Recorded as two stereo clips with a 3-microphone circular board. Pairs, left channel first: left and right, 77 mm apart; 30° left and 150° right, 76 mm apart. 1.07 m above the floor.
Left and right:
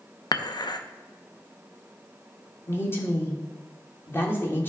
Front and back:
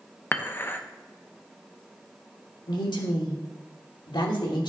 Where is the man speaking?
30° left, 1.6 m.